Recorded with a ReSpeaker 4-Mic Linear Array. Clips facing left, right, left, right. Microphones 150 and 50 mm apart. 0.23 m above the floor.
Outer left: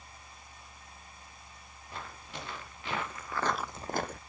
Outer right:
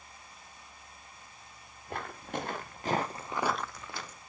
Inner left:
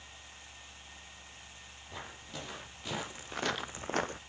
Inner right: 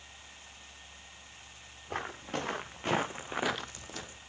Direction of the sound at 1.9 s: 55° right (ahead or behind).